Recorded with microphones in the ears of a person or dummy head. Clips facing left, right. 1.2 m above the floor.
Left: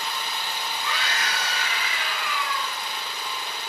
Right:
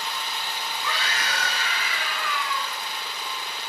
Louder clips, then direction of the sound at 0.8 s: Right 1 dB; 75° right (ahead or behind).